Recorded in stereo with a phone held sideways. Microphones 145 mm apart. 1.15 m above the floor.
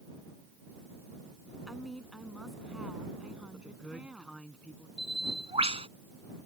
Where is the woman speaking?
5° left (ahead or behind); by 4.5 s 10° right (ahead or behind).